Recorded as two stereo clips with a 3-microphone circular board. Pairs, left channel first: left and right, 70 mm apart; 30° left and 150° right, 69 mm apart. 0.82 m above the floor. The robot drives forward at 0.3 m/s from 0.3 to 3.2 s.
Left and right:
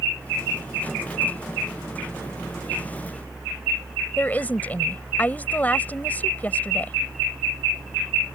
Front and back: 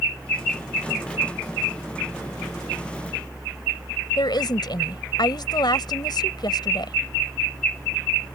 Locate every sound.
4.2 s a woman speaking: 25° left